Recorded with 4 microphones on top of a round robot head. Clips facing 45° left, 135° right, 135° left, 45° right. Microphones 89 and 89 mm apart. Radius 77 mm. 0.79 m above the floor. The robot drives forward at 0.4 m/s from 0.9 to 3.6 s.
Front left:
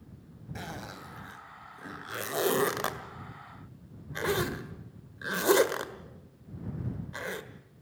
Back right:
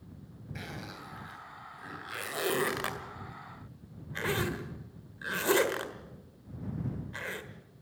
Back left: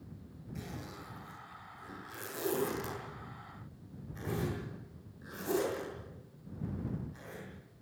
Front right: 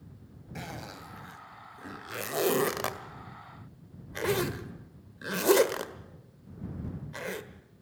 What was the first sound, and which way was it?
A zipper, 15° right.